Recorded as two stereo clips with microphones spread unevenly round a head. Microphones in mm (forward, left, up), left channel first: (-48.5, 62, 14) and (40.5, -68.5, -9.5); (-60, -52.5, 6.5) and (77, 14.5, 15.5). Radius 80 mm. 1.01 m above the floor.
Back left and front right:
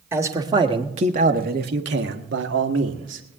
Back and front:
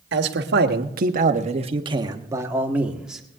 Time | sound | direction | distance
0.1 | a man speaking | 20° left | 1.5 m